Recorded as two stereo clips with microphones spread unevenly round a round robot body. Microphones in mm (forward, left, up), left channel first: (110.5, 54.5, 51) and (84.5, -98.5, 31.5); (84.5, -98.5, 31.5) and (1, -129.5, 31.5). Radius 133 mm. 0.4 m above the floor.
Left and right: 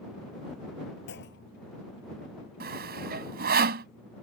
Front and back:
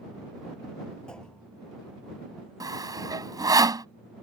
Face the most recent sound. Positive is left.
turn(degrees=-115)